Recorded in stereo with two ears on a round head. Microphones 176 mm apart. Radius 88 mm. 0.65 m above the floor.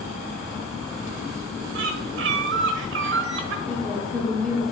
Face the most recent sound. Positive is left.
turn(degrees=5)  # may be behind; listen again after turning